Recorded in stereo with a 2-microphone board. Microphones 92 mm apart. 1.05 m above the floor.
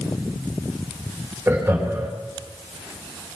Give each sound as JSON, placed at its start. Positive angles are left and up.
{"t": 1.5, "sound": "laughter", "side_deg": -30, "distance_m": 4.0}